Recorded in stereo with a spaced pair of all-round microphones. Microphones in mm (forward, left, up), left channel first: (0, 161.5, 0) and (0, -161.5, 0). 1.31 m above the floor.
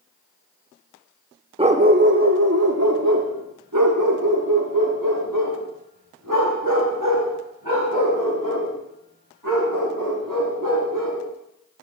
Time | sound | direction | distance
1.6 | a dog barking | 15° right (ahead or behind) | 0.8 m